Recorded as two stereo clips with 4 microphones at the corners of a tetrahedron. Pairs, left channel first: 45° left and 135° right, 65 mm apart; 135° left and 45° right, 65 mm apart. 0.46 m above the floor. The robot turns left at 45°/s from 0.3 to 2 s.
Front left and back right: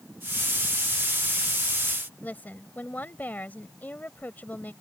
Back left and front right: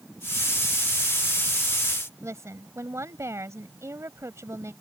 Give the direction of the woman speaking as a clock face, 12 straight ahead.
12 o'clock.